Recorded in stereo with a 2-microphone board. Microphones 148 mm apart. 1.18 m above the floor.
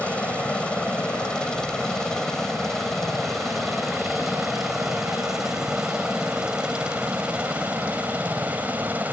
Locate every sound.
0.0 s a helicopter: 10° left (ahead or behind); by 9.1 s 10° right (ahead or behind)